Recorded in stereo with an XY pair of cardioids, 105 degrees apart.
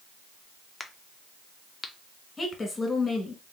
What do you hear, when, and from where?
0.8 s a crack: 25° left, 0.6 m
2.4 s a woman speaking: 30° left, 1.6 m